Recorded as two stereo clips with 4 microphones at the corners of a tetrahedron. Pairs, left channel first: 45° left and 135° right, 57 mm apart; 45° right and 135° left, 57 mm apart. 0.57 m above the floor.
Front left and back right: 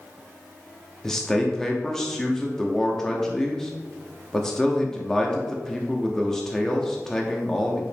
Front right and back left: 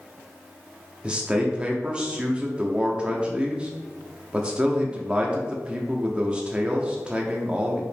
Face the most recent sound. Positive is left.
turn(degrees=110)